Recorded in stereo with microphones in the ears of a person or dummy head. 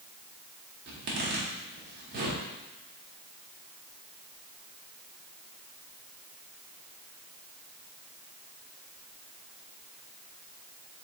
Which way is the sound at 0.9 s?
50° right (ahead or behind).